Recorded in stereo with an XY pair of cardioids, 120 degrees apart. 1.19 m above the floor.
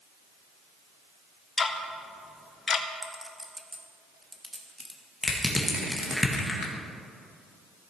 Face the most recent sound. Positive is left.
turn(degrees=10)